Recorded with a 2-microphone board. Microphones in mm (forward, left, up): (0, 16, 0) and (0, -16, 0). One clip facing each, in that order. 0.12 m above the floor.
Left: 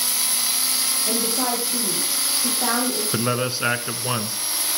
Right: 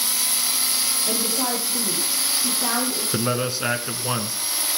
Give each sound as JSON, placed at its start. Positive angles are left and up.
{"t": 1.1, "sound": "a woman speaking", "side_deg": 40, "distance_m": 6.5}
{"t": 3.1, "sound": "a man speaking", "side_deg": 20, "distance_m": 1.1}